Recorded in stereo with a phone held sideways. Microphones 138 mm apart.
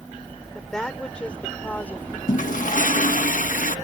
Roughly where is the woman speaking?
Centre.